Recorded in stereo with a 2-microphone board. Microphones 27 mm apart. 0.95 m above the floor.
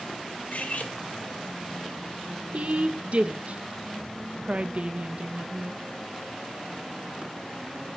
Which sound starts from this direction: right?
A woman speaking, at 2.5 s.